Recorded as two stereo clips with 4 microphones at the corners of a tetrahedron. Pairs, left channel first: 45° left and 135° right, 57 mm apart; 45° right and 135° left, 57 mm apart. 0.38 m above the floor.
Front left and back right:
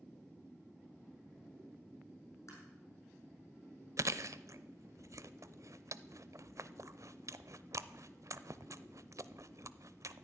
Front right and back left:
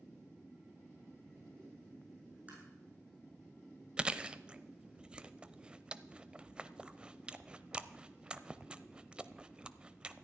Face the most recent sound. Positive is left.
turn(degrees=-155)